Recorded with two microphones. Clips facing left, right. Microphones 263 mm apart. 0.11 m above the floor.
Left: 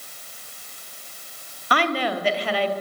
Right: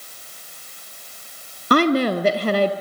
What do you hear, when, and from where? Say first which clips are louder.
1.7 s a woman speaking: right 8 dB; 45° right (ahead or behind), 2.5 m